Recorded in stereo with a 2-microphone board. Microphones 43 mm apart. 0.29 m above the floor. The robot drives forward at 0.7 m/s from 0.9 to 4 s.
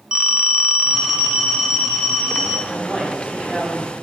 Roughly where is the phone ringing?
Centre.